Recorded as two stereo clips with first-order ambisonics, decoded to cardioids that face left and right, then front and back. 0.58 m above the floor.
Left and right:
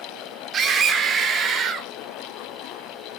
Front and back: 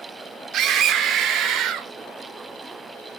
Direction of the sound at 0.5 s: 140° right.